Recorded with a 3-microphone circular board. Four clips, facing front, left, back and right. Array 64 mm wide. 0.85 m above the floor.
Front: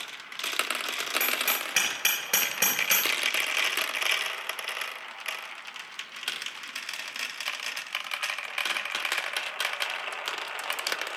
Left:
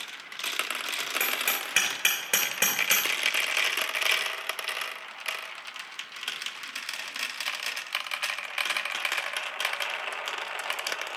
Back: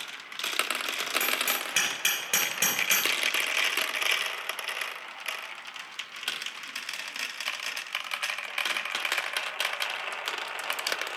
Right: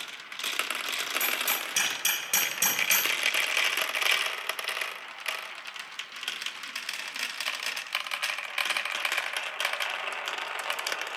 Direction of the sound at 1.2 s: 65° left.